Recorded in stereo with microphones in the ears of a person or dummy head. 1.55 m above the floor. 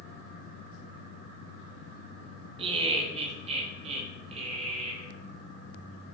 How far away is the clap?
I don't hear a clap.